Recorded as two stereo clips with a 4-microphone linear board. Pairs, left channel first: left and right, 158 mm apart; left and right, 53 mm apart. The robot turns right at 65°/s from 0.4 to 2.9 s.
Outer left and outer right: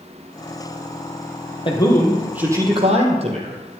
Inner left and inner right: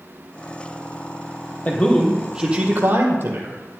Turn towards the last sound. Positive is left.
turn(degrees=-135)